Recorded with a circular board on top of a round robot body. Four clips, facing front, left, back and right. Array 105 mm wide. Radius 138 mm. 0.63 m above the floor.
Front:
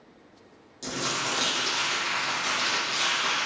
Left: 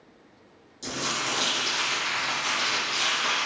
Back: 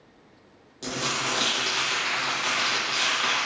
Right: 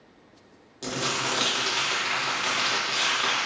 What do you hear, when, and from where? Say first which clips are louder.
0.8 s crumpling: right 2 dB, back 1 dB; 120° right, 2.5 m